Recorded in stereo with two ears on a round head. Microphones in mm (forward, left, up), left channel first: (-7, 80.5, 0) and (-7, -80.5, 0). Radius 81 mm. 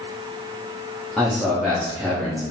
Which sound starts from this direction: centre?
A man speaking, at 1.2 s.